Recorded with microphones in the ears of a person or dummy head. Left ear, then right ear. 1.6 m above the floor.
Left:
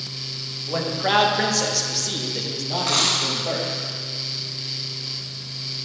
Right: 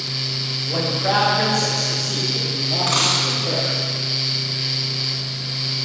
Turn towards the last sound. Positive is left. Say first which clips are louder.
# right 1 dB
turn(degrees=0)  # may be behind; listen again after turning